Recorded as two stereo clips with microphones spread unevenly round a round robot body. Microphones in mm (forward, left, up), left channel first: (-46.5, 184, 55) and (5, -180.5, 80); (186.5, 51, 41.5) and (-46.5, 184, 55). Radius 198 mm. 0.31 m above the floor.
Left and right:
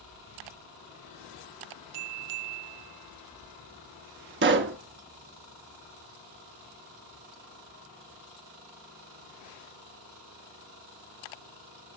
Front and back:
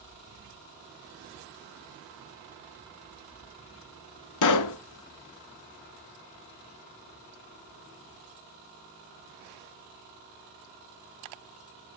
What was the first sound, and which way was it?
A pop, 20° right.